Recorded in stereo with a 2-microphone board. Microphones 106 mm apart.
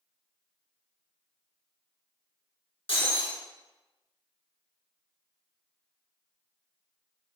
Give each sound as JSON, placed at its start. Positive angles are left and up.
{"t": 2.9, "sound": "breaking glass", "side_deg": 70, "distance_m": 4.5}